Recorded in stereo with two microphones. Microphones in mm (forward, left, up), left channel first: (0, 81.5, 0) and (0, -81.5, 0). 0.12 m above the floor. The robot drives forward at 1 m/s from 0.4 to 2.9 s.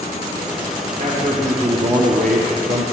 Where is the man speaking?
45° right (ahead or behind), 6 m; by 2.8 s 60° right (ahead or behind), 4.5 m.